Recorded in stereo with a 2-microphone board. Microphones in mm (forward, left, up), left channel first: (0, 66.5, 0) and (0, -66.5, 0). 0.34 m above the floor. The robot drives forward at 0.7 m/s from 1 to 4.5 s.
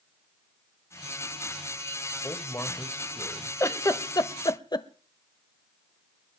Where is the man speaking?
25° left (ahead or behind), 1.3 m; by 3.5 s 15° left (ahead or behind), 1.9 m.